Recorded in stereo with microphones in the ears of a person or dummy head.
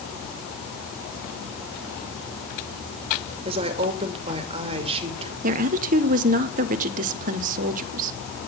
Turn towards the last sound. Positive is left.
turn(degrees=-45)  # may be behind; listen again after turning